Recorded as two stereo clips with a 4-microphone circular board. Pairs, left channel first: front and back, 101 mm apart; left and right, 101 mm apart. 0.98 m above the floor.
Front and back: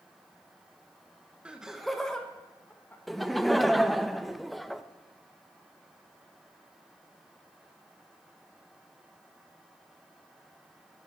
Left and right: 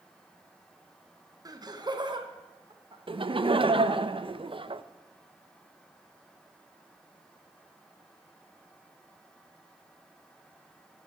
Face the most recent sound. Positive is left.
turn(degrees=-90)